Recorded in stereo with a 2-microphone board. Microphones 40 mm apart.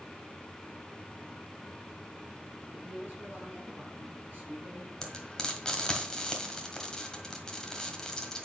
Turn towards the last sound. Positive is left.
turn(degrees=15)  # may be behind; listen again after turning